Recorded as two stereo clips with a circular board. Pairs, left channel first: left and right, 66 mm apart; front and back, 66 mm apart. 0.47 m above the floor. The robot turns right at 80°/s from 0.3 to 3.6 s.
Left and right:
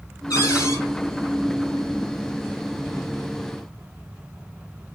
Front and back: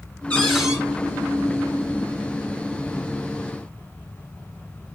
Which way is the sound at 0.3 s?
70° left.